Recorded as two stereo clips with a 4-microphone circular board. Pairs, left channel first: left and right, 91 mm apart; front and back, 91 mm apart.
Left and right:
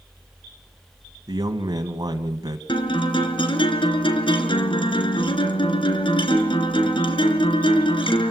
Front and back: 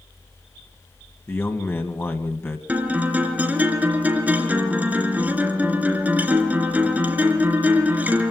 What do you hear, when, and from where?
1.3 s a man speaking: 60° right, 2 m
2.7 s a guitar: 105° left, 3 m